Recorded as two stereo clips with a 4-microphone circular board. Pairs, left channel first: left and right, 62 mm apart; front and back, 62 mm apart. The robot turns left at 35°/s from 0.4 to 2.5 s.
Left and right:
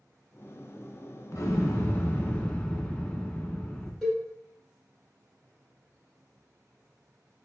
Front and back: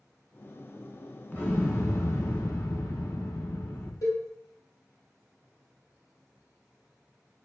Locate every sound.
1.3 s an explosion: 60° left, 0.8 m; by 3.9 s 20° left, 0.8 m
4.0 s a cowbell: straight ahead, 2 m